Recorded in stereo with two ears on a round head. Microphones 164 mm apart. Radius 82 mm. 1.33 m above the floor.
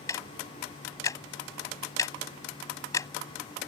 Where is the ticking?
20° left (ahead or behind).